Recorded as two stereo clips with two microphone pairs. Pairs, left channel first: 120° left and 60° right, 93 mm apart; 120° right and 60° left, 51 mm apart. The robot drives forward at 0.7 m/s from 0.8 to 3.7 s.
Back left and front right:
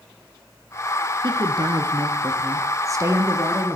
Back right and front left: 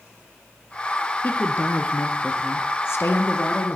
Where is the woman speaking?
75° right, 2.5 m; by 3.8 s 120° right, 3 m.